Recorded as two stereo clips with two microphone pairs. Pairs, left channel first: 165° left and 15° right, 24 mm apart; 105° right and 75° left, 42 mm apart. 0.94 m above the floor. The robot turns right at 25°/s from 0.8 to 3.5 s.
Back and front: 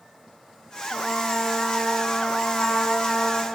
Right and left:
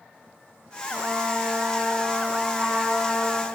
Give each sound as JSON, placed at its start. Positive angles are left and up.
{"t": 0.9, "sound": "a trumpet", "azimuth_deg": 105, "distance_m": 1.2}